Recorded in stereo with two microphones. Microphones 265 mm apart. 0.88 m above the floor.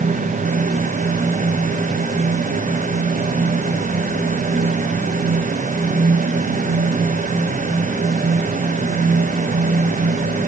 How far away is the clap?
No clap in this recording.